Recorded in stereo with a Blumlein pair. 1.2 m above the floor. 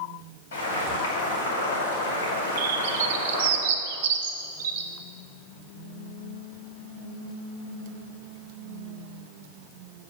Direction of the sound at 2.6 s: 55° right.